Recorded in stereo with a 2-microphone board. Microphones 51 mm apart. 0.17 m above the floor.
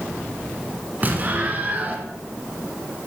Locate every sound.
1.0 s an explosion: 35° right (ahead or behind), 1.4 m